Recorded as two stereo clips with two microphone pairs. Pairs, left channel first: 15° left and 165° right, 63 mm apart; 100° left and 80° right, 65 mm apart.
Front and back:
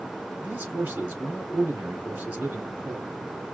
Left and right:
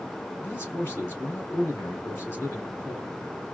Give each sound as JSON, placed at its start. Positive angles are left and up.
{"t": 0.4, "sound": "a man speaking", "azimuth_deg": 155, "distance_m": 2.5}